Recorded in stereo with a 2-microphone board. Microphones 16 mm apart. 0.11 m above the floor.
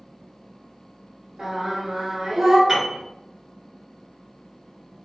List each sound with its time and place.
1.4 s singing: 45° right (ahead or behind), 1.3 m
2.7 s a piano: 25° right (ahead or behind), 1.5 m